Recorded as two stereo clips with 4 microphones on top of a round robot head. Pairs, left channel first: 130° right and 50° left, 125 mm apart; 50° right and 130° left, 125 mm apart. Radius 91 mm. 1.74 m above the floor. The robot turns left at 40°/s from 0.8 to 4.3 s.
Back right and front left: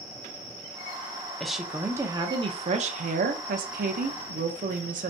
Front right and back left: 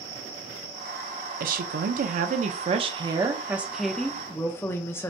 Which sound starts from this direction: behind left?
A woman speaking, at 1.4 s.